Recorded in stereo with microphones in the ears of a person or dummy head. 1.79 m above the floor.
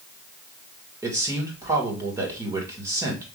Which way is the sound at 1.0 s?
15° right (ahead or behind).